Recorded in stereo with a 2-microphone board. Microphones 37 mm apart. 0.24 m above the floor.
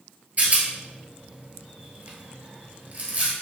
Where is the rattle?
40° right (ahead or behind), 1.1 m.